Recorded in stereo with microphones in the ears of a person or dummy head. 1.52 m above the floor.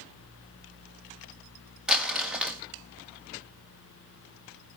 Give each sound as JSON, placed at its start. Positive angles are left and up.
{"t": 1.9, "sound": "crumpling", "side_deg": -5, "distance_m": 1.7}